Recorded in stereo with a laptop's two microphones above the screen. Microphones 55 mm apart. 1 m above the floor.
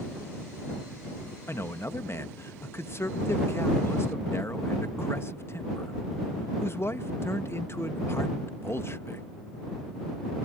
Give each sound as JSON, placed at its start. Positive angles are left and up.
{"t": 1.5, "sound": "a man speaking", "side_deg": 50}